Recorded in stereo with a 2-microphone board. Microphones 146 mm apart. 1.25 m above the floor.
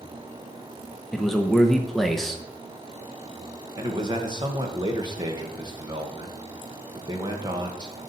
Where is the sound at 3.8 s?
30° right (ahead or behind), 1.5 m.